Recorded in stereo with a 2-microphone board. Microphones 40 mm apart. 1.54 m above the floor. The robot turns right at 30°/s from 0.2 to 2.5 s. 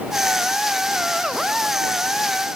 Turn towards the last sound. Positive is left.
No sound to turn to.